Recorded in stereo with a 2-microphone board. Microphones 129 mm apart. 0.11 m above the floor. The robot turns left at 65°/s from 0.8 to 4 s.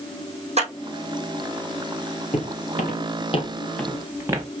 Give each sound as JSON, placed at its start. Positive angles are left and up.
{"t": 0.6, "sound": "a clap", "side_deg": -55, "distance_m": 3.5}
{"t": 2.3, "sound": "footsteps", "side_deg": 55, "distance_m": 3.0}